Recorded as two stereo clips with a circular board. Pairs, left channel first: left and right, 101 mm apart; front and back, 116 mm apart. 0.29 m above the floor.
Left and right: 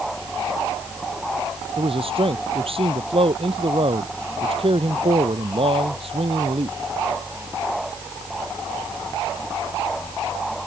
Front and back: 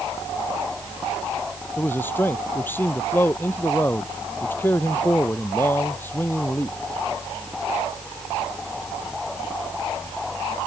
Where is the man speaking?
75° right.